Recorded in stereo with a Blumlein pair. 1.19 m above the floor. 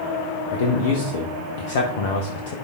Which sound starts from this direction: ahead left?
A man speaking, at 0.5 s.